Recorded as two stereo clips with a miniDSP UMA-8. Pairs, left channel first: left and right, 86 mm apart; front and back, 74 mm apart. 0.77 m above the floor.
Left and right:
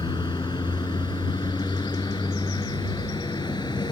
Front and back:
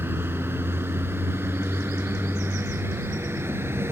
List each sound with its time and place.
0.0 s a vehicle: 120° left; by 3.9 s 125° left